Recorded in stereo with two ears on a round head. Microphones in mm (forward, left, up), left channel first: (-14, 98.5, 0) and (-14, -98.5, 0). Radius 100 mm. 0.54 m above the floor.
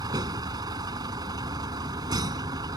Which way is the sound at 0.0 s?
20° right (ahead or behind).